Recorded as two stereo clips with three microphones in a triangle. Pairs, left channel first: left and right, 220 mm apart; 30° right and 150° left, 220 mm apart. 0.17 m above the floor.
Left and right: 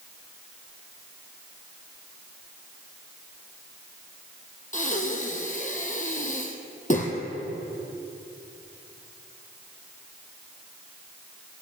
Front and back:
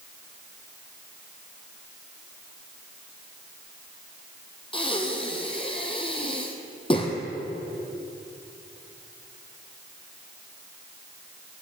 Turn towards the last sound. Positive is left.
turn(degrees=35)